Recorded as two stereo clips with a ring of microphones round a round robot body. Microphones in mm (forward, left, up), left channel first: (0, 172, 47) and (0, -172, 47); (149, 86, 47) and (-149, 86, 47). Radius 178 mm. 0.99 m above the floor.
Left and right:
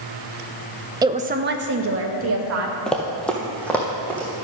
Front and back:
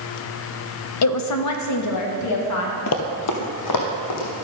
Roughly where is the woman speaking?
Ahead.